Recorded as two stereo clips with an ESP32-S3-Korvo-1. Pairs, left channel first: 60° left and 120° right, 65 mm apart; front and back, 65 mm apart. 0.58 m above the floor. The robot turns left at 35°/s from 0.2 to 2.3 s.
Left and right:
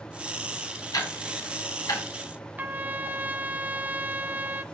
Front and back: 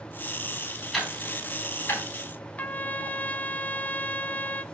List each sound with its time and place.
0.9 s ticking: 90° left, 4.5 m; by 2.0 s 50° left, 4.5 m
2.6 s a trumpet: 60° right, 0.7 m